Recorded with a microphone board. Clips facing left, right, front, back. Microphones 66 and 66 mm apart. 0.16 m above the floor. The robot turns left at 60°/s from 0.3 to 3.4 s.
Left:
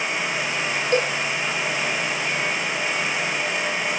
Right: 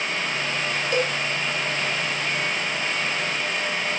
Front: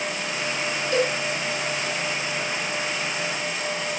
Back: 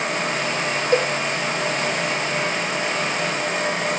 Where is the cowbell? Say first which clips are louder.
Left 3 dB, back 3 dB; 140° left, 1.2 m; by 1.1 s 130° left, 1.2 m.